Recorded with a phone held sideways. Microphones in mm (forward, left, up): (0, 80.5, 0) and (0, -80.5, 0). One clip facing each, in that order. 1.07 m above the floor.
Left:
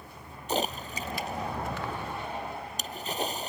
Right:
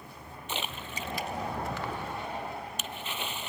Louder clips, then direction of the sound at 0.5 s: Left 8 dB; 40° left (ahead or behind).